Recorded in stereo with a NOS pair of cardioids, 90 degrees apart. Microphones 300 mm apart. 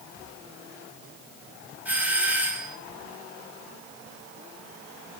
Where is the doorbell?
5° right, 7.5 m.